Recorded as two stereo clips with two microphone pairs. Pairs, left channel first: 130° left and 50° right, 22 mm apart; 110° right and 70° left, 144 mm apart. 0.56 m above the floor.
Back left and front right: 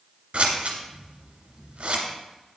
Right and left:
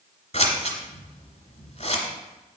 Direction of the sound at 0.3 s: 80° right.